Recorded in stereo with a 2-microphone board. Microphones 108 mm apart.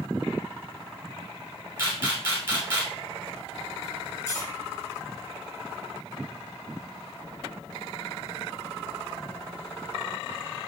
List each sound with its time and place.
1.8 s a camera shutter: 20° right (ahead or behind), 1.9 m
4.3 s cutlery clinking: 25° left (ahead or behind), 1.6 m